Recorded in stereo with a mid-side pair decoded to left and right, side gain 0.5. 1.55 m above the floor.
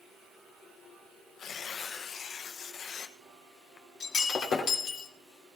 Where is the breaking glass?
55° left, 2.5 m.